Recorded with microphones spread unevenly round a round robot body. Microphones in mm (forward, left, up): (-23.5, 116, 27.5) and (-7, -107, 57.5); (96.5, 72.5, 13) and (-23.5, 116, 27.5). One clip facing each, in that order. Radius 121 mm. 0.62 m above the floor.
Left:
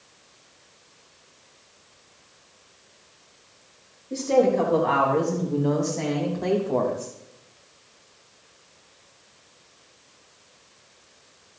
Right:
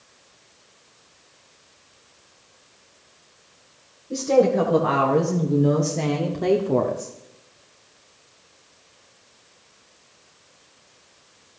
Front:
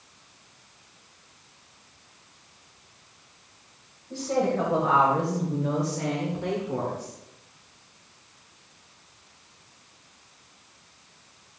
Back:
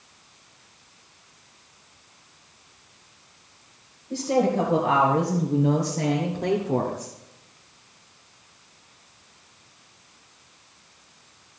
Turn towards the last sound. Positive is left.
turn(degrees=-150)